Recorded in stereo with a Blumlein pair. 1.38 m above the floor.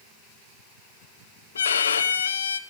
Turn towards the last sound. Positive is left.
turn(degrees=70)